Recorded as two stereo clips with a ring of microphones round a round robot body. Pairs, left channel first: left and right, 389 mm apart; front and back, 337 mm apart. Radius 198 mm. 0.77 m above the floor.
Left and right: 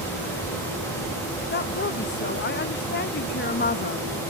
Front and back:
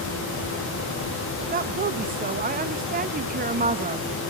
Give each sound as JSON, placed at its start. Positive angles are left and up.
{"t": 1.5, "sound": "a woman speaking", "azimuth_deg": 135, "distance_m": 0.9}